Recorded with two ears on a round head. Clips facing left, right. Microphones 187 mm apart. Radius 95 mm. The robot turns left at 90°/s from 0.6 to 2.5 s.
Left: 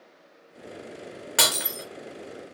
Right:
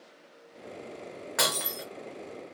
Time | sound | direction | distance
1.4 | breaking glass | 40° left | 0.6 m